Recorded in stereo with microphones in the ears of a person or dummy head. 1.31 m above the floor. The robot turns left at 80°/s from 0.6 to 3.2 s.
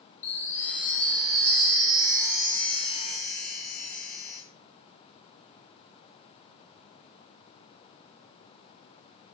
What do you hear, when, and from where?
0.2 s a chime: 20° left, 0.7 m; by 4.4 s 170° left, 0.7 m